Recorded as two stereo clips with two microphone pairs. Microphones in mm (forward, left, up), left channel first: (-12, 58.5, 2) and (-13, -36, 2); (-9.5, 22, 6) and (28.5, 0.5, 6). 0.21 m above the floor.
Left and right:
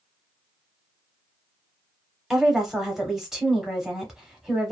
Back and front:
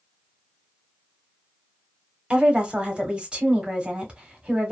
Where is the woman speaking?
15° right, 1.0 m.